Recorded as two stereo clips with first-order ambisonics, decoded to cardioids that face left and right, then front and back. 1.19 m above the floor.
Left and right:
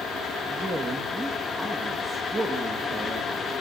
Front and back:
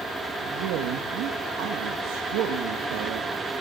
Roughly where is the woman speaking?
Behind.